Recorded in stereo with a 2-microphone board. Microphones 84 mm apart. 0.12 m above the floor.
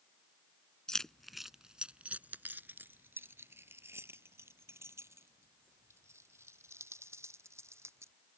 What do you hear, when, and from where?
0.9 s keys jangling: 10° left (ahead or behind); by 8.1 s 35° right (ahead or behind)